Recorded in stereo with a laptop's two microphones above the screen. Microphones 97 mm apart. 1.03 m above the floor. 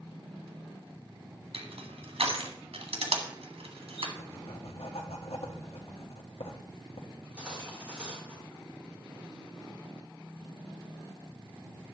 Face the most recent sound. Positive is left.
turn(degrees=-10)  # may be behind; listen again after turning